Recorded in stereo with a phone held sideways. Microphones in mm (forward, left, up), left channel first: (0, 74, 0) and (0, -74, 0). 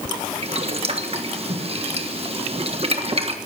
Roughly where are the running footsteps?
I don't hear running footsteps.